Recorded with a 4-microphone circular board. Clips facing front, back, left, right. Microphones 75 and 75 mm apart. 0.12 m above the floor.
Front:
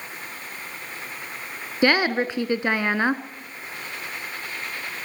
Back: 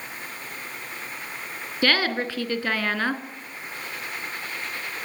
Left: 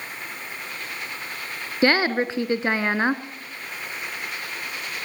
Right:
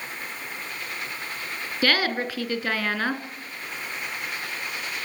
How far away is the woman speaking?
About 1.4 m.